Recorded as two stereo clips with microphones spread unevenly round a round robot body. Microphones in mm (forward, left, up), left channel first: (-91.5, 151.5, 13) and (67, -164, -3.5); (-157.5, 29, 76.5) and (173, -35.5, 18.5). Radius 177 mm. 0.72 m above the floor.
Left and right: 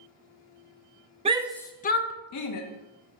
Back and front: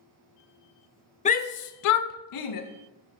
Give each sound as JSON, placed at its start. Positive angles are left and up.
{"t": 1.2, "sound": "a shout", "azimuth_deg": -120, "distance_m": 0.5}